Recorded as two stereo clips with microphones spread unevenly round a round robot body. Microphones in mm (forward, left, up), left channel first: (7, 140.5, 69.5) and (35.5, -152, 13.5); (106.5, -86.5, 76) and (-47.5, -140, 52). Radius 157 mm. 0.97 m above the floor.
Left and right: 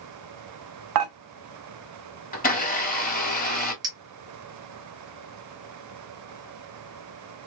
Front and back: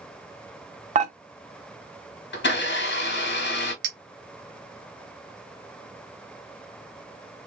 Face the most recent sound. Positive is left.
turn(degrees=-160)